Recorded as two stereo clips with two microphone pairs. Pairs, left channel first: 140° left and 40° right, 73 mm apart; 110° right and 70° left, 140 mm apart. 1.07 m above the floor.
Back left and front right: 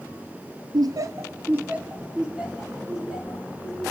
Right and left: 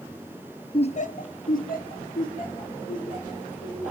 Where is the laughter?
55° right, 0.7 m; by 3.9 s 125° right, 4.5 m.